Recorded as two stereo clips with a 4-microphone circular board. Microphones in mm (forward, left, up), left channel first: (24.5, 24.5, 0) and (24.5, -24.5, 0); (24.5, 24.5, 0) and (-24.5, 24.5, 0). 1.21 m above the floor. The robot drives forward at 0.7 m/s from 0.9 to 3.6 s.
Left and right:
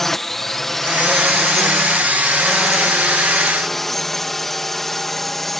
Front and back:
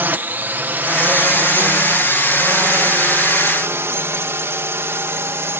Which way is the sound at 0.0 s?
170° left.